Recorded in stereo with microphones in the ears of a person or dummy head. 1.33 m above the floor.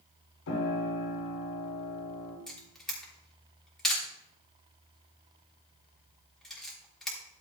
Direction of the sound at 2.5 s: 5° left (ahead or behind).